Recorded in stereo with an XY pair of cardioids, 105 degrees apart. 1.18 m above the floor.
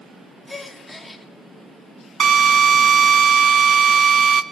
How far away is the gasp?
About 1.9 m.